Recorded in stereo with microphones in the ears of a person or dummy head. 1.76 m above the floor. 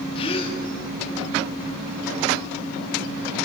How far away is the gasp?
About 2.5 m.